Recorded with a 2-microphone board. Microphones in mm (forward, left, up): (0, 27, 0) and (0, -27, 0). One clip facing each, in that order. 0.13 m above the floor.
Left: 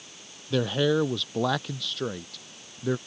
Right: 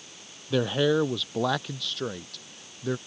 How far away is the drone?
I don't hear a drone.